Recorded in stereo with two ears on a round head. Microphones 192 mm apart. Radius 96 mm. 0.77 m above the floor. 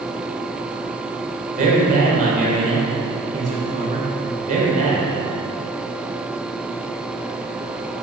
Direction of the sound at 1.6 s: 35° right (ahead or behind).